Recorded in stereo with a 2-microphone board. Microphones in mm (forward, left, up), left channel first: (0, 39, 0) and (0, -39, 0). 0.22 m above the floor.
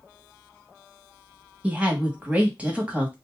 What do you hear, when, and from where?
1.6 s a woman speaking: 15° right (ahead or behind), 1.0 m